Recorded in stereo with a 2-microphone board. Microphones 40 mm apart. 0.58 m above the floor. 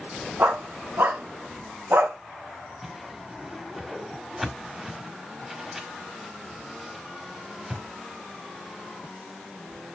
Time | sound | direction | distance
0.4 | a dog barking | 65° right (ahead or behind) | 2.5 m
2.8 | a whoosh | 10° right (ahead or behind) | 1.7 m